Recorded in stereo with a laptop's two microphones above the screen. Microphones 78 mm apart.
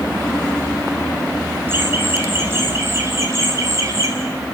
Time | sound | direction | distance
1.7 | laughter | 30° right (ahead or behind) | 9 m